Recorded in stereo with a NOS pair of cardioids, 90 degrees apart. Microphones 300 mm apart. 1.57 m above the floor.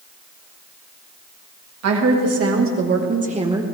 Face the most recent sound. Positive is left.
turn(degrees=-10)